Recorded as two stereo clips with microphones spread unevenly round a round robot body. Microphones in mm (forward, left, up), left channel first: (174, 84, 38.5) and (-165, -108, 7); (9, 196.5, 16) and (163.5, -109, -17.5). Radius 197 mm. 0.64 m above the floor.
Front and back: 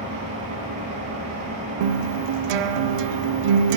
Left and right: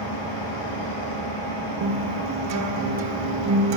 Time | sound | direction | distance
0.0 | an engine running | 135° left | 3 m
1.8 | a guitar | 120° right | 0.5 m